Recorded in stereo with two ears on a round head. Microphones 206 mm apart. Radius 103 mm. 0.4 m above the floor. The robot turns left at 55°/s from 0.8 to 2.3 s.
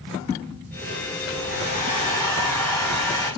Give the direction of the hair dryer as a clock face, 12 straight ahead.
10 o'clock.